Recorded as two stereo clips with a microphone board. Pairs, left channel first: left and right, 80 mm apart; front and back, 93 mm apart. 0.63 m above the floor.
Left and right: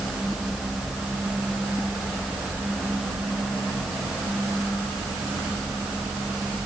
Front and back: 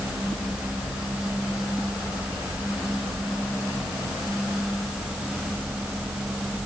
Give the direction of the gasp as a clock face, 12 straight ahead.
I don't hear a gasp.